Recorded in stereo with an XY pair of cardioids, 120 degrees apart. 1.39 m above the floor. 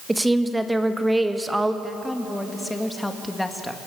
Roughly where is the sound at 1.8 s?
Ahead.